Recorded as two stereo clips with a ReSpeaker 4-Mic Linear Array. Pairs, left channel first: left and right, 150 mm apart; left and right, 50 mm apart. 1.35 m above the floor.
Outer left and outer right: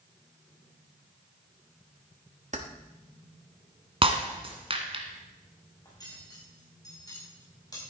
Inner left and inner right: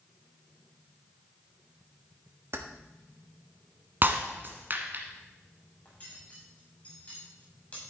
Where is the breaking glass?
40° right (ahead or behind), 1.6 m.